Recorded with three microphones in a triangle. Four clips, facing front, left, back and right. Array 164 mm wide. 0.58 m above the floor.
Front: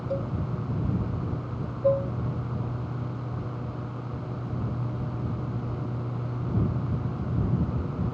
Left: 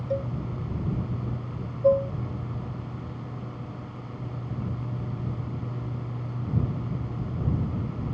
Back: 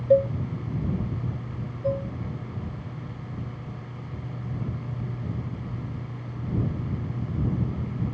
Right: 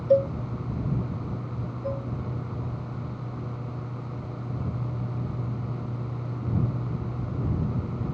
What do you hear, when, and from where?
0.1 s a cowbell: 140° right
1.8 s dishes clattering: 70° left